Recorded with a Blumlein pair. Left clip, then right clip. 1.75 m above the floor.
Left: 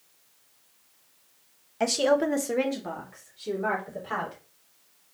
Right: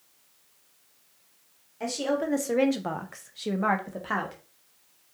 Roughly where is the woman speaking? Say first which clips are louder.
Left 5 dB; ahead left.